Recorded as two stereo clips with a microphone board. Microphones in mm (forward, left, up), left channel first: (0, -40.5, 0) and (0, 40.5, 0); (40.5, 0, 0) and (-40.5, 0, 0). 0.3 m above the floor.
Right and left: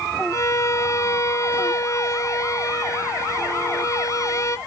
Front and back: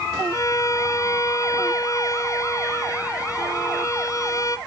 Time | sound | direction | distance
0.3 | a violin | 45° right | 0.8 m